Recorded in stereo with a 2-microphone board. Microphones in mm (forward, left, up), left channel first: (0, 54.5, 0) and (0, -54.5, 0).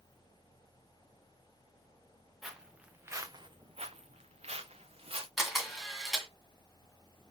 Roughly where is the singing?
No singing in this recording.